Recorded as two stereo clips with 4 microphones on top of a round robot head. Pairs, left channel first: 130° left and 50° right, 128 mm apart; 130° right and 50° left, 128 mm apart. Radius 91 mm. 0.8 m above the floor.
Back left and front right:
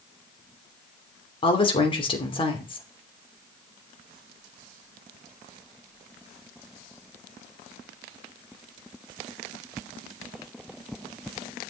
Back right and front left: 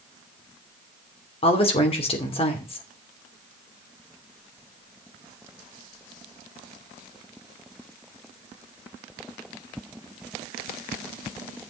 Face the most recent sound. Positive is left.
turn(degrees=-175)